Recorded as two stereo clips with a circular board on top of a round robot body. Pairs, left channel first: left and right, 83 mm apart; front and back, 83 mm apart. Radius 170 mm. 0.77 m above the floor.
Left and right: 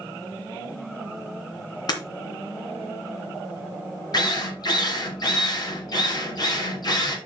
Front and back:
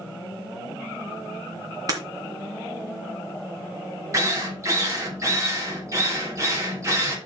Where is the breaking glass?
135° left, 2.5 m.